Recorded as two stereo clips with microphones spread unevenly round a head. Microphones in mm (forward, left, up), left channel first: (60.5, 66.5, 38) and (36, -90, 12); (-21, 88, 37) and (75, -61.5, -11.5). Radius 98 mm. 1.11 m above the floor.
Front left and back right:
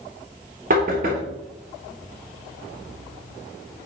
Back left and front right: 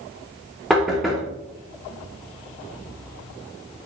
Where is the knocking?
145° right, 1.1 m.